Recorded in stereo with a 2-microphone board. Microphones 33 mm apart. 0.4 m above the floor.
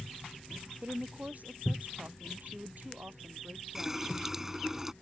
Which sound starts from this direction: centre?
A running tap, at 3.8 s.